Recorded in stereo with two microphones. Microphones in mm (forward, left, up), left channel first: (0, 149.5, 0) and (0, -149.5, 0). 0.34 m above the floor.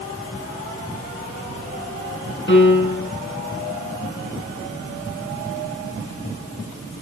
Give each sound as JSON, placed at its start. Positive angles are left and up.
{"t": 2.5, "sound": "a piano", "side_deg": 40, "distance_m": 3.0}